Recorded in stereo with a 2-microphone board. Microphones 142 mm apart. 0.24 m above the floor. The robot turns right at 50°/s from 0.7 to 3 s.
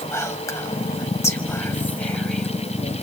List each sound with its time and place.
0.1 s whispering: 20° left (ahead or behind), 1.0 m; by 2.5 s 5° left (ahead or behind), 1.0 m